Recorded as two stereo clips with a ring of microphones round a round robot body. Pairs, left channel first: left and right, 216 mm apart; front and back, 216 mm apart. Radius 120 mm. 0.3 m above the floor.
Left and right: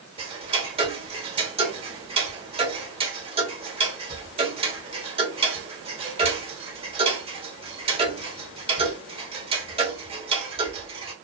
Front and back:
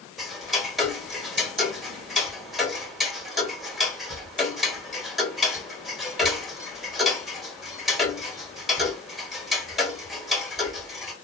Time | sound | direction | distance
0.2 | ticking | 95° right | 1.4 m